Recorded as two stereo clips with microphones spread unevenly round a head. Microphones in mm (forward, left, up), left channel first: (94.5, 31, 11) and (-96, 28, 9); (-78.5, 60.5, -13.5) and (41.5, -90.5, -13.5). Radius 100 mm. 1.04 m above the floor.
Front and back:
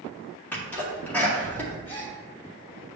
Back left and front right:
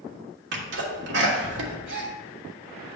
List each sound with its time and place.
0.5 s a sneeze: 80° right, 2.0 m
1.9 s a gasp: 80° right, 2.0 m